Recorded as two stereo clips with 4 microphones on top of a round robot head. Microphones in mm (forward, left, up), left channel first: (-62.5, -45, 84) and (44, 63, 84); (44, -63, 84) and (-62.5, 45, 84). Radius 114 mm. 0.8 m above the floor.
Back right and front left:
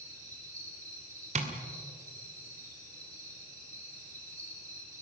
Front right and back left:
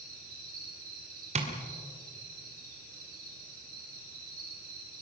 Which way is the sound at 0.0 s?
115° left.